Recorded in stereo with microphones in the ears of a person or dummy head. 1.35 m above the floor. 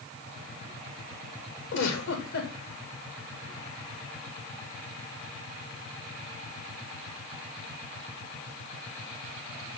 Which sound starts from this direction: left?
A giggle, at 1.7 s.